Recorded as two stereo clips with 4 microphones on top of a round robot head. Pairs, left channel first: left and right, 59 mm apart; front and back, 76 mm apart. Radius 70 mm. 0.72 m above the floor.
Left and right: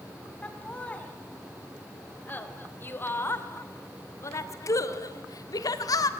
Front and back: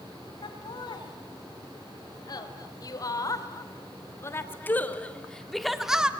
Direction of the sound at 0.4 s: 20° left.